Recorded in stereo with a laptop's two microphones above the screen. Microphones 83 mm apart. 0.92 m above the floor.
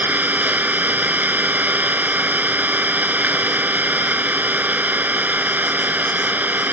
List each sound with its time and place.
0.0 s an engine running: 20° right (ahead or behind)